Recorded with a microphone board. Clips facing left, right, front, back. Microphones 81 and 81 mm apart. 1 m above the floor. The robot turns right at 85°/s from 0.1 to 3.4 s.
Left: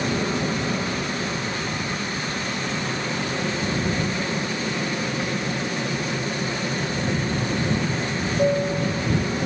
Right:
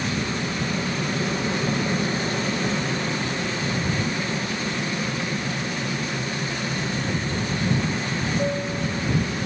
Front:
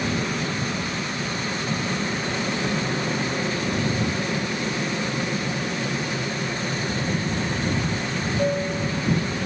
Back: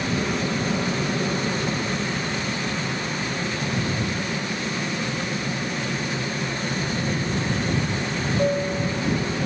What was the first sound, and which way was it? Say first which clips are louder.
An aircraft: left 3 dB, back 1 dB; 90° left.